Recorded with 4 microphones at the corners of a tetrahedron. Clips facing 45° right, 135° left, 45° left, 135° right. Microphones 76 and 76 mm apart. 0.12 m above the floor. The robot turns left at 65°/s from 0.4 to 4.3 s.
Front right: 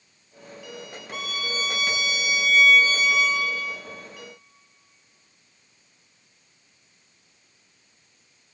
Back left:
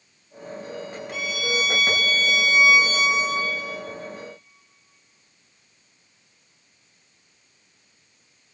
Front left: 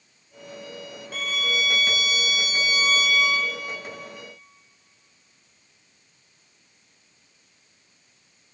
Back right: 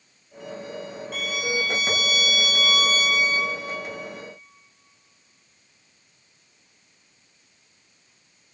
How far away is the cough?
I don't hear a cough.